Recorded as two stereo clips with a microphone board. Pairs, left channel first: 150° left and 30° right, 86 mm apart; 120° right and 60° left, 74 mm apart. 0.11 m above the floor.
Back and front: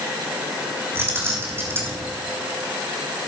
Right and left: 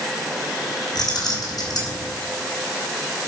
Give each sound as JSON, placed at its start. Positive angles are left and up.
{"t": 0.9, "sound": "keys jangling", "azimuth_deg": -95, "distance_m": 4.0}